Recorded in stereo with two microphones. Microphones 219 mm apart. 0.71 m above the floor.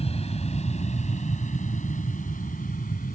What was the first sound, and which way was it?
An aircraft, 25° left (ahead or behind).